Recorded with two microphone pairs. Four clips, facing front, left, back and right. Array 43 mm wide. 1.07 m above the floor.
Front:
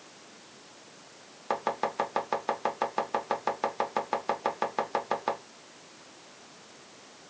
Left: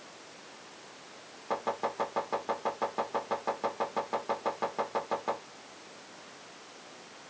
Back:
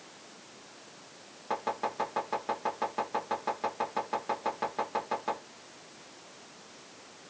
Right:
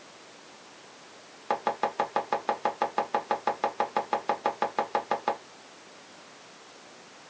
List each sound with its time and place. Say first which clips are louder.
1.5 s chopping: right 4 dB, front 3 dB; 50° right, 1.1 m